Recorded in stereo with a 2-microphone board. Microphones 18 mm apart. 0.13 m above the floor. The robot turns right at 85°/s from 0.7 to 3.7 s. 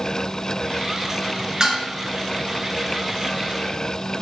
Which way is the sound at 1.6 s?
40° right (ahead or behind).